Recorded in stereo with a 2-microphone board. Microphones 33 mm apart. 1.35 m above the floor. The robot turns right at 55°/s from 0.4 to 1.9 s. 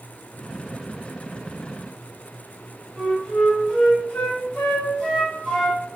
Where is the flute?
35° left (ahead or behind), 1.2 m.